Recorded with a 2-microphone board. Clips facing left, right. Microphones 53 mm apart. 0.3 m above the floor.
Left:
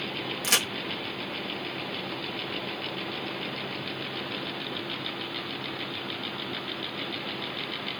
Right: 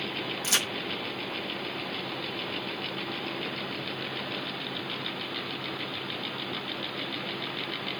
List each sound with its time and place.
0.4 s a crack: 70° left (ahead or behind), 0.9 m